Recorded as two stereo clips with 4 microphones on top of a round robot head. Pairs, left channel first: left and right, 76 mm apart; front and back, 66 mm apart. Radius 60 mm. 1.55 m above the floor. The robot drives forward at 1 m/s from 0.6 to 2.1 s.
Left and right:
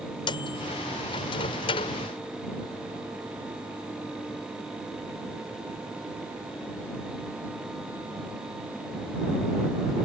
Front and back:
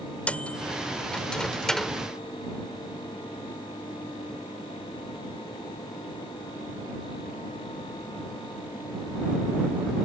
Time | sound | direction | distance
0.3 | a microwave | 75° left | ?